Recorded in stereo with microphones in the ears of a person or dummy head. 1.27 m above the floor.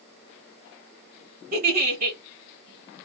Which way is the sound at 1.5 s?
45° right (ahead or behind).